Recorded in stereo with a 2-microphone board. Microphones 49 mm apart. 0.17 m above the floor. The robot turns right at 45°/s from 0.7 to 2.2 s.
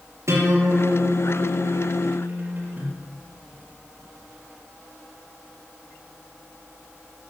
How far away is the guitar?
About 4 m.